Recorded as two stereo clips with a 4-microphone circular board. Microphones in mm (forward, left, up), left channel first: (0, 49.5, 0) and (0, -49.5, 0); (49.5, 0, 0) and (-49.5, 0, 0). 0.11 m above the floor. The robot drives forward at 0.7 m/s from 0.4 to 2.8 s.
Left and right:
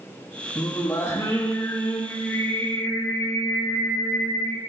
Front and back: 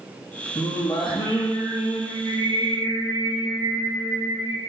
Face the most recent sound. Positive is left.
turn(degrees=30)